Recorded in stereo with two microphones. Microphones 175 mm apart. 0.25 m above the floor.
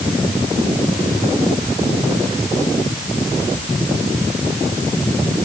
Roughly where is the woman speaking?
I don't hear a woman speaking.